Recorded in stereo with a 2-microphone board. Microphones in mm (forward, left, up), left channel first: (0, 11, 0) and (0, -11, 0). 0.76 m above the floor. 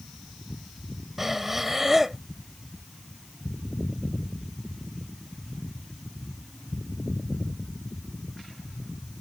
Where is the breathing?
10° right (ahead or behind).